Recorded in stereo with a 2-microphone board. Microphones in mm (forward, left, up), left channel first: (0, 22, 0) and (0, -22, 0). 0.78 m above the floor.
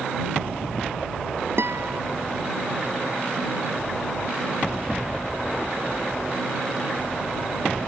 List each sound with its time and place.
1.6 s a guitar: 70° right (ahead or behind)